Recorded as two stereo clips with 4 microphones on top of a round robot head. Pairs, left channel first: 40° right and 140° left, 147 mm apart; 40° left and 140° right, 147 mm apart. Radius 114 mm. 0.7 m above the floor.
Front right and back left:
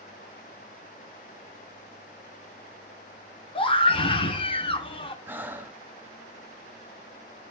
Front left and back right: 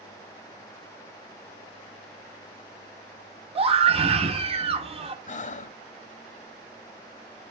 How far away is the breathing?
About 0.8 m.